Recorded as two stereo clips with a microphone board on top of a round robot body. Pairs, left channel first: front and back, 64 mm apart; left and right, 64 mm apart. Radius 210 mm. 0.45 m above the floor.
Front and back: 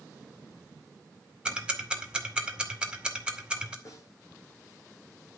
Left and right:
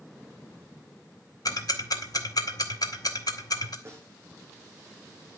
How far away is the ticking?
About 2 m.